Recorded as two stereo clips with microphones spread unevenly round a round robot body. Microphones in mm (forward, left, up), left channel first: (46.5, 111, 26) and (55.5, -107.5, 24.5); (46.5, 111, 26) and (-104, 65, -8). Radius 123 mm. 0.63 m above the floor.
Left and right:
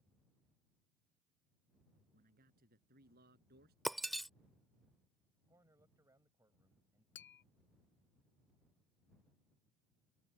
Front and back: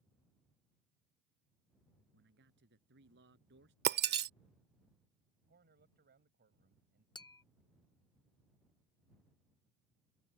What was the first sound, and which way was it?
A man speaking, 145° right.